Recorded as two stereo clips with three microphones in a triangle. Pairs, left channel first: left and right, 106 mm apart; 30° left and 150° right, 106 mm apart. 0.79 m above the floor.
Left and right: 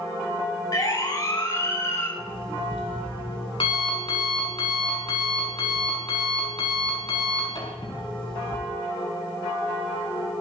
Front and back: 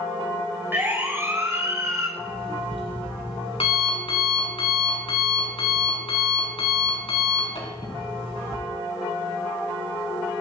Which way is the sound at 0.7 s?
140° left.